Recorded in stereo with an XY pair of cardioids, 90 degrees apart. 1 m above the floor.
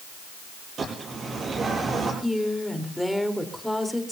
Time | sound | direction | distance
0.8 | a bird | 50° right | 8 m
2.2 | a woman speaking | 5° left | 4 m